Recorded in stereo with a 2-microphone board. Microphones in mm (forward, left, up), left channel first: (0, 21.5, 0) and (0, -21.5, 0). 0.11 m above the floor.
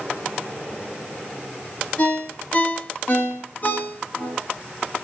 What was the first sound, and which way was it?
A ringtone, 35° left (ahead or behind).